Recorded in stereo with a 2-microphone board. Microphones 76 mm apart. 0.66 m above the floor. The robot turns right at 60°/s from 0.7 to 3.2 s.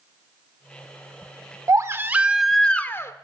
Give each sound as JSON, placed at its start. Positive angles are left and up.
{"t": 1.7, "sound": "a baby crying", "azimuth_deg": -50, "distance_m": 0.7}